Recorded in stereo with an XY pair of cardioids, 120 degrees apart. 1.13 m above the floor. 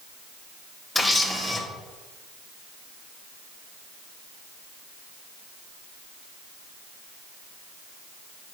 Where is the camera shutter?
20° left, 2 m.